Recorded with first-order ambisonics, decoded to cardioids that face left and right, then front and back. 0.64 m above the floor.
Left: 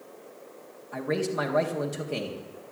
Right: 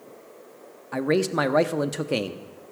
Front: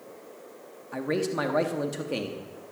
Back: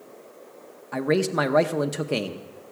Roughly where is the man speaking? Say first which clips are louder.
Right 5 dB, back 5 dB; behind right.